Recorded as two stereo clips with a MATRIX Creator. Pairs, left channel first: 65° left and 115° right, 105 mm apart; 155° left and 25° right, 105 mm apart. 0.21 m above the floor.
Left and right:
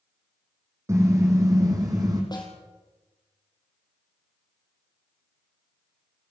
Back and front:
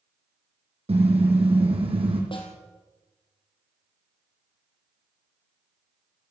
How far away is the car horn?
About 5.5 m.